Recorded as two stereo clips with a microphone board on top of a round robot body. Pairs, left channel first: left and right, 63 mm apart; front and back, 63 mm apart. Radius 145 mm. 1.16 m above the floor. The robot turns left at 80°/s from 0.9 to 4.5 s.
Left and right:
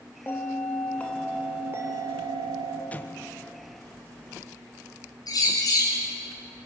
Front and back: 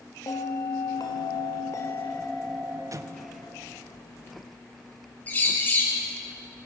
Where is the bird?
65° left, 5 m.